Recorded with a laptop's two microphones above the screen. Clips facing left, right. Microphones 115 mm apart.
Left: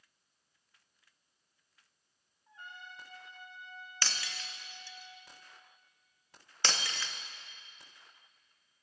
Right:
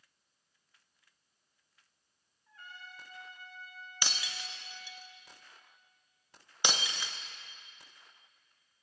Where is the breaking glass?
15° right (ahead or behind), 0.9 m.